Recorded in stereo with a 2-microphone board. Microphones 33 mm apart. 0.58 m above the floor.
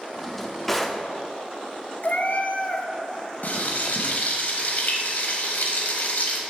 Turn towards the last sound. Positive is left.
turn(degrees=70)  # may be behind; listen again after turning